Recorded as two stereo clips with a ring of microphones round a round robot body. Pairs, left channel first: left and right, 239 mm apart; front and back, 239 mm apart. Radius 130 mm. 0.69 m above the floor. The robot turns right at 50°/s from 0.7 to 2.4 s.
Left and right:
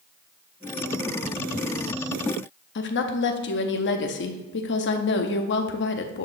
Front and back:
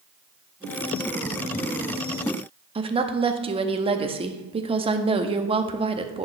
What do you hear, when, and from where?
2.8 s a woman speaking: 115° left, 0.7 m